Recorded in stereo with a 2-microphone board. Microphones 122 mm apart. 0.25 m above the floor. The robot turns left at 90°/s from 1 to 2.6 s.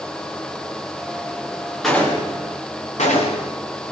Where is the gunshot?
Centre (ahead or behind), 6.5 m; by 3.5 s 70° left (ahead or behind), 6.5 m.